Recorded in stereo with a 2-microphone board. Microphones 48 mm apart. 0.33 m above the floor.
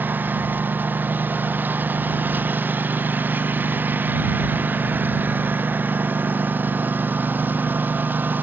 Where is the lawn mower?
40° right (ahead or behind).